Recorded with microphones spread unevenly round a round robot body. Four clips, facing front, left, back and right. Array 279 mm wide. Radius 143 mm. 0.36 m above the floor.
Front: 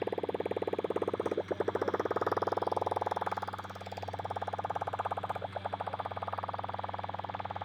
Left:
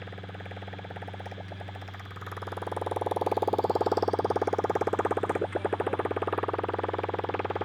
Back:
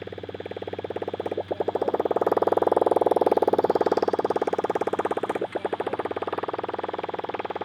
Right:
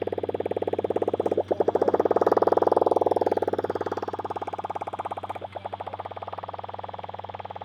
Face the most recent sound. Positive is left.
turn(degrees=140)